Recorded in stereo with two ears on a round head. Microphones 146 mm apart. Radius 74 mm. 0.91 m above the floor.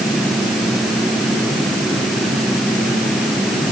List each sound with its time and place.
Only background noise.